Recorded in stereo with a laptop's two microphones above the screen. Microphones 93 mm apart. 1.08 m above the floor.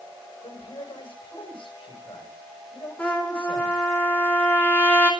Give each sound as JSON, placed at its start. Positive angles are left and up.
{"t": 0.4, "sound": "a man speaking", "side_deg": 70, "distance_m": 6.5}
{"t": 3.0, "sound": "a trumpet", "side_deg": 20, "distance_m": 4.0}